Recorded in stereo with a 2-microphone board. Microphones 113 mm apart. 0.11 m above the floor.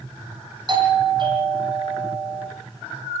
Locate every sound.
0.7 s a doorbell: 45° right (ahead or behind), 6.5 m